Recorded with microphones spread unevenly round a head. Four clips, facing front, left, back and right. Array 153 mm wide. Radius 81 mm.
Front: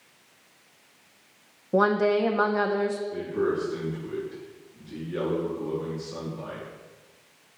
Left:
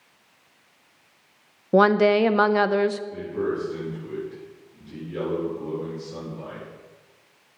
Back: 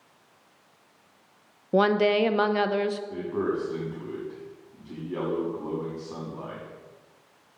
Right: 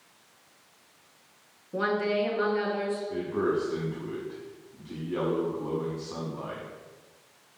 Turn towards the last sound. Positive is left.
turn(degrees=-150)